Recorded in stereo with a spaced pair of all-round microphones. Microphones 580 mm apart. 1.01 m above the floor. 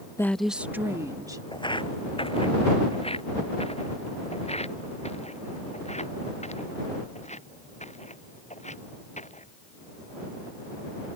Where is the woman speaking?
5° left (ahead or behind); by 1.4 s 5° right (ahead or behind).